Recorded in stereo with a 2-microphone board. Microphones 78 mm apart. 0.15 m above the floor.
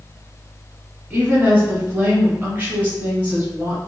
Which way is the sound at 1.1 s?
20° right (ahead or behind).